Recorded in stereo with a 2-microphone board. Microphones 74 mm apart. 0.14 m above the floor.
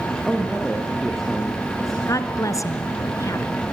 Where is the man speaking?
Centre (ahead or behind), 5 m.